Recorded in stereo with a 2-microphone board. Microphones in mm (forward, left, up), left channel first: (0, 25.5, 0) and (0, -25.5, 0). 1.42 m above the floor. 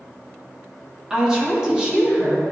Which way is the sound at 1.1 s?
15° right (ahead or behind).